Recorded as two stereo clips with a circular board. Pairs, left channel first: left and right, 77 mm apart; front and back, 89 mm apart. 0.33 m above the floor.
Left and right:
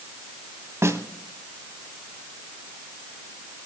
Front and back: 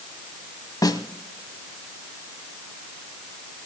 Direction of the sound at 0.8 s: 40° right.